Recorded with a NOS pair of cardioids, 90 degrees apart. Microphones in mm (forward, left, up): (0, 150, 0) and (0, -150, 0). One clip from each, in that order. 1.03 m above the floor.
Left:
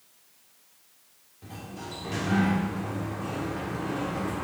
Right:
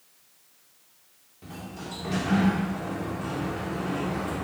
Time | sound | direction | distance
1.4 | a sliding door | 15° right | 1.6 m